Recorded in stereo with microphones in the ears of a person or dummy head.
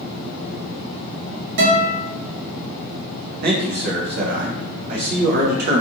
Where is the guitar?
65° right (ahead or behind), 1.1 m.